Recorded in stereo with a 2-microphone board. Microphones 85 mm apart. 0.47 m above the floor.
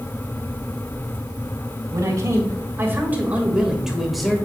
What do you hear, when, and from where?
1.9 s a man speaking: 40° right (ahead or behind), 3 m; by 4.4 s 5° left (ahead or behind), 2.5 m